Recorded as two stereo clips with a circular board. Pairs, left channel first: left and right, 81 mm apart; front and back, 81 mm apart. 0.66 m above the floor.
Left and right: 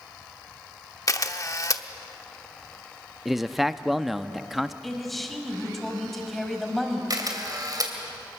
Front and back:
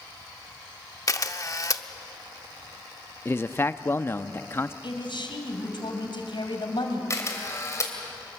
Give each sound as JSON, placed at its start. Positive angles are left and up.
{"t": 1.1, "sound": "a camera shutter", "azimuth_deg": 45, "distance_m": 0.8}
{"t": 3.2, "sound": "a man speaking", "azimuth_deg": -5, "distance_m": 0.5}
{"t": 4.8, "sound": "a man speaking", "azimuth_deg": 5, "distance_m": 3.0}
{"t": 7.1, "sound": "a camera shutter", "azimuth_deg": -50, "distance_m": 3.0}